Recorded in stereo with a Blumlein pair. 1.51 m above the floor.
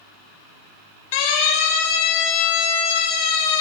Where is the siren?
45° left, 8.5 m; by 3.6 s 40° left, 9 m.